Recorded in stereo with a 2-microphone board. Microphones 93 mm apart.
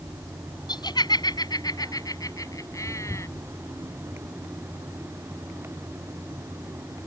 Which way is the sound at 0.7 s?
50° left (ahead or behind).